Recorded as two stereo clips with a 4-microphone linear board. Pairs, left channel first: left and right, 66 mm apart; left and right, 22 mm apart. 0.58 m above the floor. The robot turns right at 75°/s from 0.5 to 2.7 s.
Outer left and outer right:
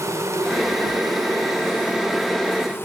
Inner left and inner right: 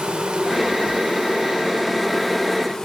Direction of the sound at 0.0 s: 130° right.